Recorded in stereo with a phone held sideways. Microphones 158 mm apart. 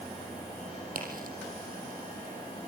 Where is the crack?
65° right (ahead or behind), 5.5 m.